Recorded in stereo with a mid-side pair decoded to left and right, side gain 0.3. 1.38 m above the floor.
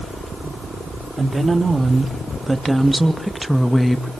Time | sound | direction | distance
1.2 | a woman speaking | 40° right | 3.5 m